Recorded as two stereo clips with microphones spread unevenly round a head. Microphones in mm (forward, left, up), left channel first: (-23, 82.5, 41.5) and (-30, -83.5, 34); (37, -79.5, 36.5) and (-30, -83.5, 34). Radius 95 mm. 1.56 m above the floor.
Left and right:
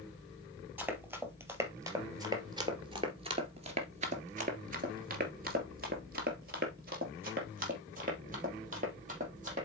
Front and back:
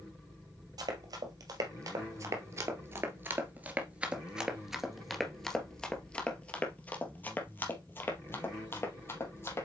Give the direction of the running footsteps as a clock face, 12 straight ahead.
6 o'clock.